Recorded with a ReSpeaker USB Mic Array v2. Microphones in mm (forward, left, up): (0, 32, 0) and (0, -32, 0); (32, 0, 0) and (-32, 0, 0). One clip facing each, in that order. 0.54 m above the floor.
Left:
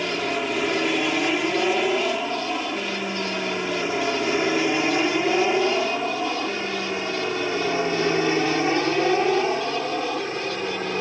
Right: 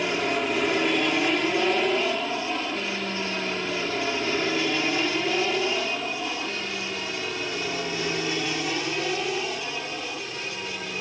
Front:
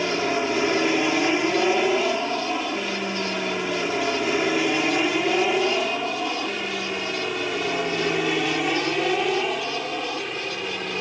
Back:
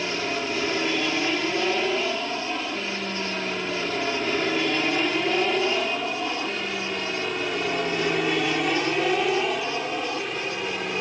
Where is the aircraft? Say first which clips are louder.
Even, front 4 dB; 5° left; by 11.0 s 95° left.